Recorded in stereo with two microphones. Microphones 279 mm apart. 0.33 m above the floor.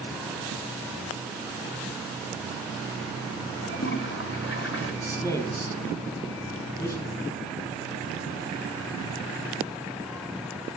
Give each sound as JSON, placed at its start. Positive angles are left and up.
{"t": 3.6, "sound": "a toilet flushing", "side_deg": 45, "distance_m": 1.4}
{"t": 5.0, "sound": "a man speaking", "side_deg": 10, "distance_m": 2.5}